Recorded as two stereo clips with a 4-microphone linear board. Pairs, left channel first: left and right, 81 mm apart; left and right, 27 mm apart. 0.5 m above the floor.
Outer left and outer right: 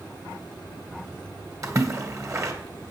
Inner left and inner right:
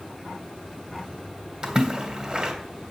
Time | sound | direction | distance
1.6 | a splash | 40° right (ahead or behind) | 2.0 m